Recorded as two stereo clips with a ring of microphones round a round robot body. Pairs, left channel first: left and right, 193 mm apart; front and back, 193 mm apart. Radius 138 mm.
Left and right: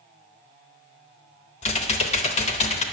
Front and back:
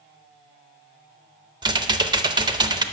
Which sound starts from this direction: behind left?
Typing on a keyboard, at 1.6 s.